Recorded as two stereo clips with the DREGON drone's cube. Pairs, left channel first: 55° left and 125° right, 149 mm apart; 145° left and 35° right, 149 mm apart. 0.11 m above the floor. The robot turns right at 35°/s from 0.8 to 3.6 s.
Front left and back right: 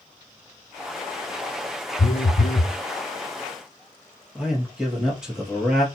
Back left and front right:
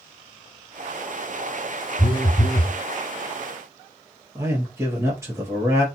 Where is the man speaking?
45° right, 1.1 m.